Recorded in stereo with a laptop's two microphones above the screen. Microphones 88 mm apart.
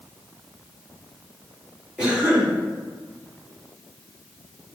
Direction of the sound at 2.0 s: 15° right (ahead or behind).